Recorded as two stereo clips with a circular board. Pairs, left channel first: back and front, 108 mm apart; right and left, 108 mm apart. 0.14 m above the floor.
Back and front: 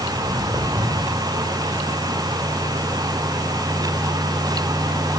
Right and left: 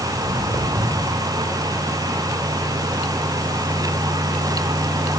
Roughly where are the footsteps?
Ahead right.